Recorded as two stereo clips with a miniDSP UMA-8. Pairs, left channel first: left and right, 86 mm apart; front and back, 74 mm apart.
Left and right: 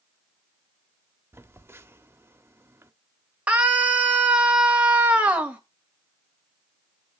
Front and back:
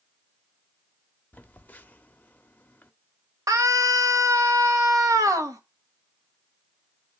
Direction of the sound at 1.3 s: 50° right.